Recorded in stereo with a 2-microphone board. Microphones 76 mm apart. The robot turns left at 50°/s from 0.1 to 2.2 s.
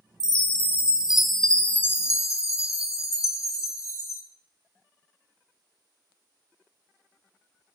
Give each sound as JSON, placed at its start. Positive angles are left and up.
{"t": 0.2, "sound": "a chime", "azimuth_deg": -125, "distance_m": 0.7}